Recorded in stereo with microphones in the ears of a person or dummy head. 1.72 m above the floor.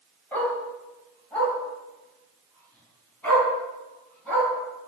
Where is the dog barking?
15° left (ahead or behind), 4.5 m; by 4.5 s 10° left (ahead or behind), 8 m.